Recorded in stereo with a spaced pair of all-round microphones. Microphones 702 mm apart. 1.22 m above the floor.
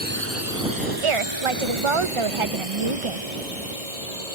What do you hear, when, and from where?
0.0 s a drone: 15° right (ahead or behind); by 4.3 s 60° right (ahead or behind)
1.0 s a woman speaking: 45° right (ahead or behind)